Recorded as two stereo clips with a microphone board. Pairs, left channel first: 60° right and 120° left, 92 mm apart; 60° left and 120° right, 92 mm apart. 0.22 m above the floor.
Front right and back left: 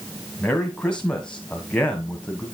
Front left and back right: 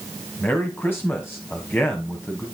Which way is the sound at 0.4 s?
10° left.